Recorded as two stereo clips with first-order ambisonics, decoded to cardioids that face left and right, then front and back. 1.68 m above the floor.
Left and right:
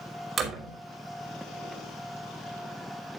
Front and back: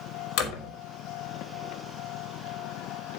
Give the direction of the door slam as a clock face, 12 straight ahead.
1 o'clock.